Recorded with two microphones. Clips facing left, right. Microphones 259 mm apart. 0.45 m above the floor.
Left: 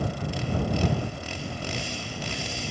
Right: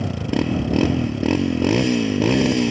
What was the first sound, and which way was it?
A motorcycle, 75° right (ahead or behind).